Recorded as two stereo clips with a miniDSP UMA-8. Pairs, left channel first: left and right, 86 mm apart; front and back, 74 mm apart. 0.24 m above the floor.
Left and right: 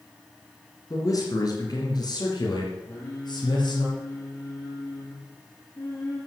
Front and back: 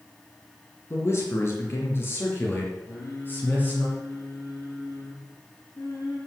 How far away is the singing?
About 5 m.